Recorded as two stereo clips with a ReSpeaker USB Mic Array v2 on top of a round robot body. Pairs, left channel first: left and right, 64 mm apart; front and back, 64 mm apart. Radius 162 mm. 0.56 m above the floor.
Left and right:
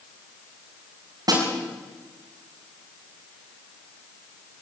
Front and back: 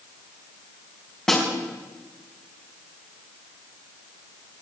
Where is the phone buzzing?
No phone buzzing in this recording.